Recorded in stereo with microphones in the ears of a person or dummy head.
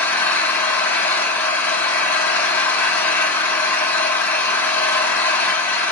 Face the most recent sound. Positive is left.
turn(degrees=15)  # may be behind; listen again after turning